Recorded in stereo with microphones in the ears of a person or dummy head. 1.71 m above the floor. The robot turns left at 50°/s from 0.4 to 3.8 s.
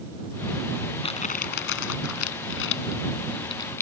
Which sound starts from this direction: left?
Crumpling, at 1.0 s.